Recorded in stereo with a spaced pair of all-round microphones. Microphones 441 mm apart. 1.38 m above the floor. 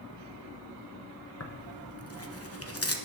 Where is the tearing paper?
30° left (ahead or behind), 1.1 m.